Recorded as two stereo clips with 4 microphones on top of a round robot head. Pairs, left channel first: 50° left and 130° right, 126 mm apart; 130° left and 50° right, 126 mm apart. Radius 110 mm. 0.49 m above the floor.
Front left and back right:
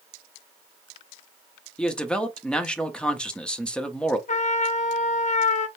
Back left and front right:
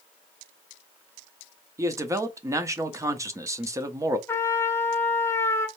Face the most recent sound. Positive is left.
turn(degrees=60)